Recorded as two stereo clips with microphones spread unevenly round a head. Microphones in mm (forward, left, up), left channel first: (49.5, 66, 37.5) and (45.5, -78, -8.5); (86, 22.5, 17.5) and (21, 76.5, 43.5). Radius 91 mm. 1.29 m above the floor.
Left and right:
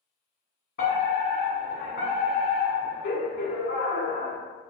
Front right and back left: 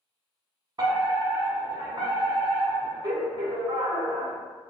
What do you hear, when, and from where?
0.8 s a fire alarm: 115° left, 1.4 m